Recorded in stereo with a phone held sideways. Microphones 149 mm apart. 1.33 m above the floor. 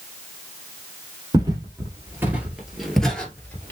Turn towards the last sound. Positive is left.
turn(degrees=15)  # may be behind; listen again after turning